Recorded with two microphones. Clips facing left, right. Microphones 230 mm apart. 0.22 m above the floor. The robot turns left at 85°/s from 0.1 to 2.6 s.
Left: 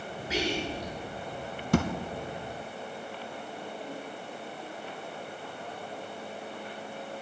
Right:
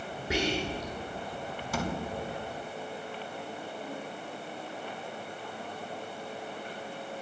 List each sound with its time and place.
0.3 s whispering: 55° right (ahead or behind), 3.5 m; by 0.9 s 15° right (ahead or behind), 3.5 m
1.7 s a thud: 60° left (ahead or behind), 0.7 m; by 1.9 s 55° left (ahead or behind), 0.7 m